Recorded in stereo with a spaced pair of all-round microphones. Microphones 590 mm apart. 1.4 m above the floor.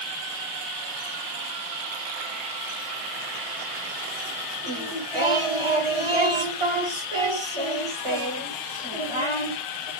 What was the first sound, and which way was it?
Singing, 55° right (ahead or behind).